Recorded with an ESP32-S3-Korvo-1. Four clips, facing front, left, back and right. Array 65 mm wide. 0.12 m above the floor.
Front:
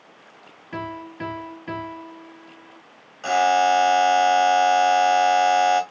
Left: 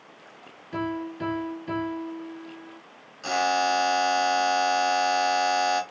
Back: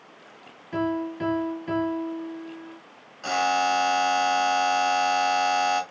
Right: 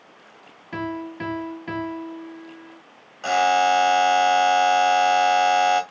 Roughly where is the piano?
Right.